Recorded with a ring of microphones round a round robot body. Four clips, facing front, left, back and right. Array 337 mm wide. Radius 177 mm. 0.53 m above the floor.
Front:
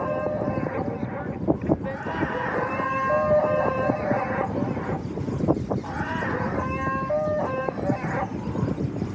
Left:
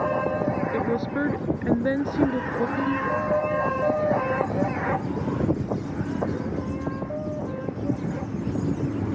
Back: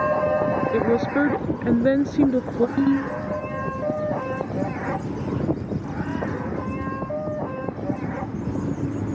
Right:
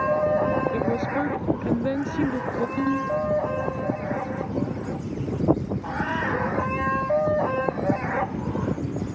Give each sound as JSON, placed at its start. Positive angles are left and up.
{"t": 0.7, "sound": "a woman speaking", "azimuth_deg": 175}
{"t": 2.8, "sound": "a ringtone", "azimuth_deg": -175}